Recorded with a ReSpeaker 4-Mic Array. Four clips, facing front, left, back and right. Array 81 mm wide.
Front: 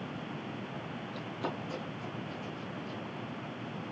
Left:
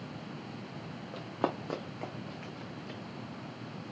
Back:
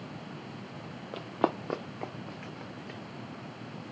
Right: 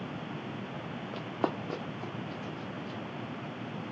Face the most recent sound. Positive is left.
turn(degrees=155)